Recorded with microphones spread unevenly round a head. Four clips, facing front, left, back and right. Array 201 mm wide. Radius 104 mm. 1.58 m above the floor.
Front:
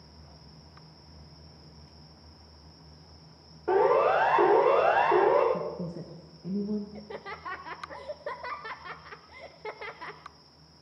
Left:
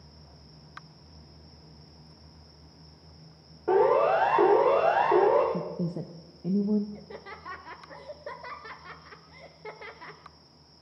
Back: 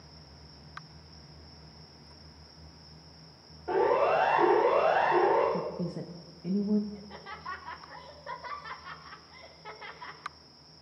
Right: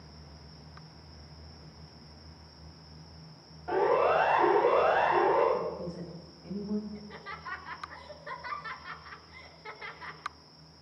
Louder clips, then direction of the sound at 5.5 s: Left 1 dB, even; 95° left.